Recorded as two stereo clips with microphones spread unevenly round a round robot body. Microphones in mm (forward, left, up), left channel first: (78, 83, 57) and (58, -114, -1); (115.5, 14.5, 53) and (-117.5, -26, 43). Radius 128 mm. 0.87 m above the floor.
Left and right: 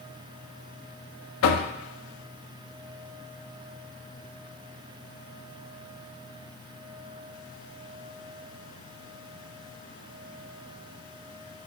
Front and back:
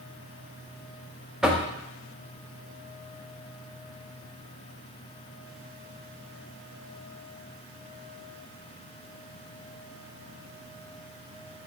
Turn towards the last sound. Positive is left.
turn(degrees=100)